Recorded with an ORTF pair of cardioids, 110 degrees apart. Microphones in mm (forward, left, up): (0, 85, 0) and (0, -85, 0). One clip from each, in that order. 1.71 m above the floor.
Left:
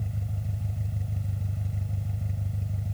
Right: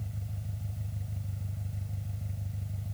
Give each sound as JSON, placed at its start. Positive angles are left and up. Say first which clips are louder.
{"t": 0.0, "sound": "an engine running", "louder": "left 6 dB", "azimuth_deg": 35}